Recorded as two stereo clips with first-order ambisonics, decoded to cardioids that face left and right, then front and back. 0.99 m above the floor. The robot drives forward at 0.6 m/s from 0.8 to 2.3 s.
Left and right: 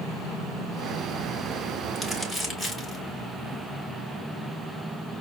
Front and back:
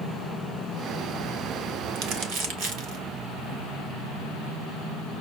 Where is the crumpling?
Straight behind, 0.9 m.